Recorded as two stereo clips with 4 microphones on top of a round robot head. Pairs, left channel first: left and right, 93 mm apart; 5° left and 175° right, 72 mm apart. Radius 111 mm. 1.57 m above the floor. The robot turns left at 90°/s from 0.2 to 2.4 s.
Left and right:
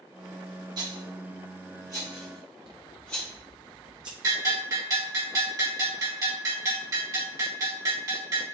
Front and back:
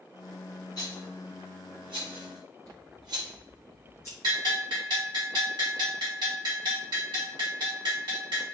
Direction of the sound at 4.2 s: 145° right.